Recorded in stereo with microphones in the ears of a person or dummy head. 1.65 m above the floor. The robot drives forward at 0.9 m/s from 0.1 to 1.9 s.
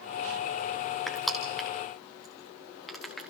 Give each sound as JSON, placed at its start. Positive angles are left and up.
{"t": 1.1, "sound": "crushing", "side_deg": 5, "distance_m": 1.5}